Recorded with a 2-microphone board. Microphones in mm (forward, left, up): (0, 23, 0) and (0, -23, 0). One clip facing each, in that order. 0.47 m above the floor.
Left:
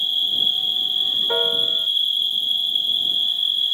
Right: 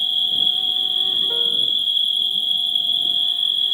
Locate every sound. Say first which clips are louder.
0.0 s an insect: right 1 dB; 15° right (ahead or behind)
1.3 s a piano: even; 50° left (ahead or behind)